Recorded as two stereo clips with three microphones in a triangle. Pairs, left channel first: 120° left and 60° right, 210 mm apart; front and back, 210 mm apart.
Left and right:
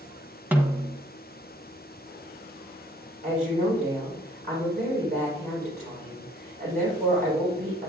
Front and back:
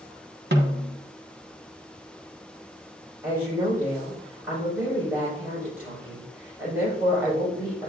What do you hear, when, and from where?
0.5 s a snare drum: 140° right, 1.5 m
3.2 s a woman speaking: 100° right, 5.5 m